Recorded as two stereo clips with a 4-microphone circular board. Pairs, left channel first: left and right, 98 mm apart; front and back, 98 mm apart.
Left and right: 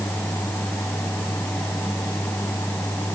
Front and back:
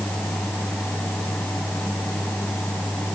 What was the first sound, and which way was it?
Only background noise.